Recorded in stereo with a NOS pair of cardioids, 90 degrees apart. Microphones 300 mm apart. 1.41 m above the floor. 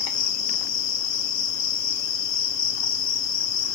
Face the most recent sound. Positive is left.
turn(degrees=60)